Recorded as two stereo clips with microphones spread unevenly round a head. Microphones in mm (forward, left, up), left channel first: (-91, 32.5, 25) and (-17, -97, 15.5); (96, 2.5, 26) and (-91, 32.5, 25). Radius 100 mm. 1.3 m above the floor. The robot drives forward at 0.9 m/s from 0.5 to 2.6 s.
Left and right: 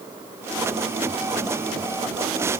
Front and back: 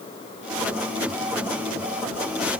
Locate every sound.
Only background noise.